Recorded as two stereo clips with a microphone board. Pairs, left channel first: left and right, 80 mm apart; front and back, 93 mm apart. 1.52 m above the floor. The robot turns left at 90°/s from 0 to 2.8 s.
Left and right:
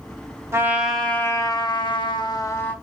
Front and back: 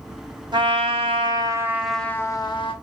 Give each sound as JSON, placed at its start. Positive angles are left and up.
{"t": 0.5, "sound": "a trumpet", "azimuth_deg": -145, "distance_m": 0.7}